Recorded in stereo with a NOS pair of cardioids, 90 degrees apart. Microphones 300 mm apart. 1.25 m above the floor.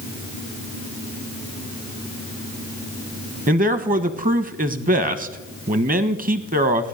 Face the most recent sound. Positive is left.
turn(degrees=-30)